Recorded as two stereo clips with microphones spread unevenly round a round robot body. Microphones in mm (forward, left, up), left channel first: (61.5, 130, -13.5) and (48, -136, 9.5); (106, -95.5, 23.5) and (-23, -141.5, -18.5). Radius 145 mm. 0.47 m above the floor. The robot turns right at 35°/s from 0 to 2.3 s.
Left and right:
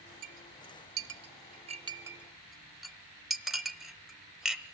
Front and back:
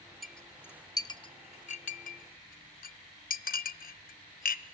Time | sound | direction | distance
0.2 | a clink | 75° right | 1.1 m